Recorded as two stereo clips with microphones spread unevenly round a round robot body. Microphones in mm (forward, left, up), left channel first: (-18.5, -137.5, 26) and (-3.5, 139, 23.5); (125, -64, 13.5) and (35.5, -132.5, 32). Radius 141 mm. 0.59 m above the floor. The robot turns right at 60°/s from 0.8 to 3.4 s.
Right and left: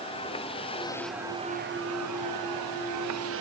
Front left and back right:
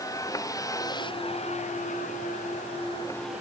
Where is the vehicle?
20° right; by 3.4 s 135° left.